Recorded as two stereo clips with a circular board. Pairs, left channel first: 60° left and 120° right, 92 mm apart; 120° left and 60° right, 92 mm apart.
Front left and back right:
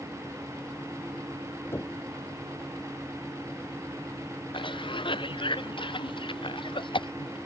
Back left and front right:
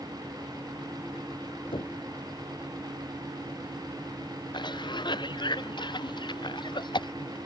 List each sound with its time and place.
1.7 s knocking: 120° left
4.5 s a cough: 85° left